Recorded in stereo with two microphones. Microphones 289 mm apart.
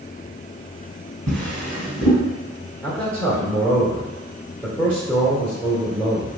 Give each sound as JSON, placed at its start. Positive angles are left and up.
{"t": 1.3, "sound": "a drawer", "side_deg": 5, "distance_m": 1.4}
{"t": 2.8, "sound": "a man speaking", "side_deg": 5, "distance_m": 0.9}